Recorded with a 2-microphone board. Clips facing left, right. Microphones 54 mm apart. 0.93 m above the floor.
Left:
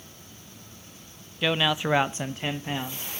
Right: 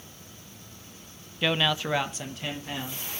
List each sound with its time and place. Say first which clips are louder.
1.4 s a man speaking: left 1 dB; centre (ahead or behind), 0.6 m; by 3.1 s 25° left (ahead or behind), 1.4 m